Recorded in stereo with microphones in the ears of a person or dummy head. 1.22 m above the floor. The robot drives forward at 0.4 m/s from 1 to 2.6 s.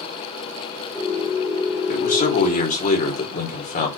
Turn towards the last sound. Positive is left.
turn(degrees=35)  # may be behind; listen again after turning